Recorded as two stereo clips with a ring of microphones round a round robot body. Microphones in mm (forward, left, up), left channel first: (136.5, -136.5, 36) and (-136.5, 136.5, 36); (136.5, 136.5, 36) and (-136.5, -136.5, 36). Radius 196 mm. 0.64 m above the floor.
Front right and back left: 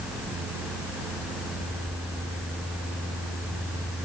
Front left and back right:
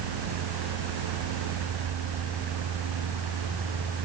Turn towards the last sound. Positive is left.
No sound to turn to.